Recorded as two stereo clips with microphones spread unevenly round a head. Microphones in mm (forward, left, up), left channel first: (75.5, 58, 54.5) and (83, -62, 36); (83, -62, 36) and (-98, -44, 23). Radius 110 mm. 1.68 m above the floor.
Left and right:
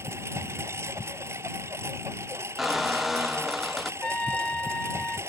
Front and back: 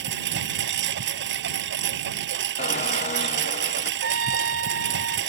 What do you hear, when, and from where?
0.0 s a lawn mower: 165° right
2.6 s a squeak: 15° left
4.0 s a trumpet: 175° left